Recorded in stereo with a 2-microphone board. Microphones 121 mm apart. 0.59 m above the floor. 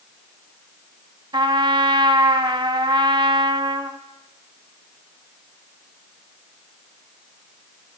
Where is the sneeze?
I don't hear a sneeze.